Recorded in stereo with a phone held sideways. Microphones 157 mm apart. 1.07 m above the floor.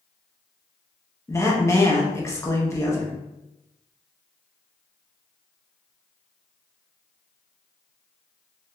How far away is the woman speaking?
About 0.8 m.